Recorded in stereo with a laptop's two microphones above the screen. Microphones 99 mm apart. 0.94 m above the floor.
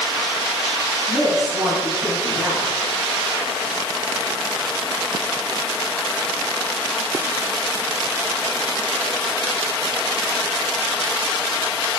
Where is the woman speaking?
50° right (ahead or behind), 7 m.